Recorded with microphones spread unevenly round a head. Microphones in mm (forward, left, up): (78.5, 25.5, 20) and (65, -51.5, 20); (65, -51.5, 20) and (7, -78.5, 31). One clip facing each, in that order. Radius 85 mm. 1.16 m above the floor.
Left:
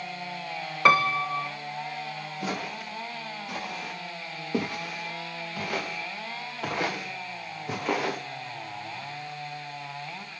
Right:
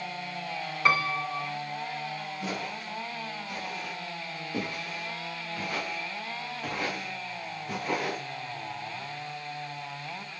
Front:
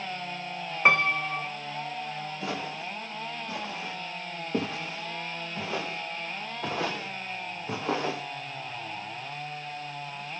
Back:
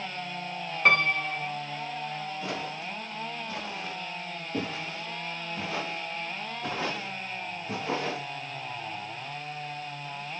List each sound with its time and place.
0.8 s a piano: 100° left, 1.0 m
2.4 s footsteps: 60° left, 9.5 m; by 8.2 s 70° left, 4 m